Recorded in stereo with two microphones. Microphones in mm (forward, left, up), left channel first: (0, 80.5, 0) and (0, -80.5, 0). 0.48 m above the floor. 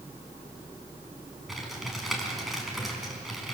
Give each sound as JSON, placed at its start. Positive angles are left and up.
{"t": 1.5, "sound": "typing on a keyboard", "side_deg": 0, "distance_m": 5.0}